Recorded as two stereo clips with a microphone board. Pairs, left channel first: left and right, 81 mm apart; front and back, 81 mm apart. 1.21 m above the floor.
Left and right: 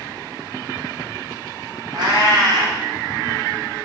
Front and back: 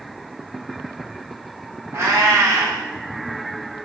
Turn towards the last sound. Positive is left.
turn(degrees=-125)